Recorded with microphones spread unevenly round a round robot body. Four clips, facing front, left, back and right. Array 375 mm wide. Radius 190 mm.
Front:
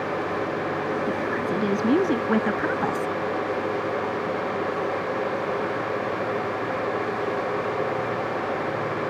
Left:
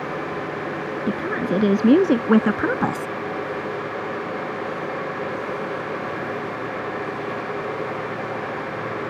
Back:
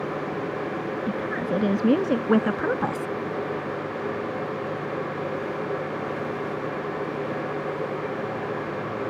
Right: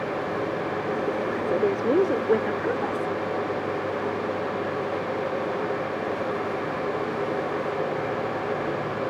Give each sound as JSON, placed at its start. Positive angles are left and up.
{"t": 1.1, "sound": "a woman speaking", "azimuth_deg": 110}